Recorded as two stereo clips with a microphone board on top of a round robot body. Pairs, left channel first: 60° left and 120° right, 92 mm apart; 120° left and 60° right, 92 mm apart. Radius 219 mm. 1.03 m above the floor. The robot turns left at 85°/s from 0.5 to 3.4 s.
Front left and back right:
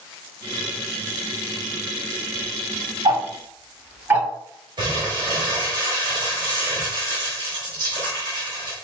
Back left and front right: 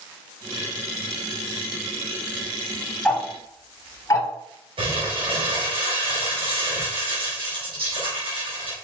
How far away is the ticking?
About 2 m.